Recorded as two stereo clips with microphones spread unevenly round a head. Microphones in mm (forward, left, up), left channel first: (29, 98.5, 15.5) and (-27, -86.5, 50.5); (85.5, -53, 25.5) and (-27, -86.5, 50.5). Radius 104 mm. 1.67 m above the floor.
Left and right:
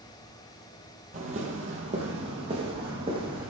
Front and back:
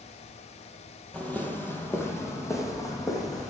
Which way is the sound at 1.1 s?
70° right.